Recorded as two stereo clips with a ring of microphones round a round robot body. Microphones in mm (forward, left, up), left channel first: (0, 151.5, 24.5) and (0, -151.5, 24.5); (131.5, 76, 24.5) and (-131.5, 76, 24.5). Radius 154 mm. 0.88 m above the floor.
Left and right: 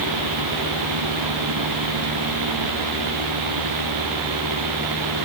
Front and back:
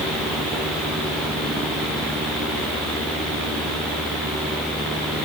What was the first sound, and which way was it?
Only background noise.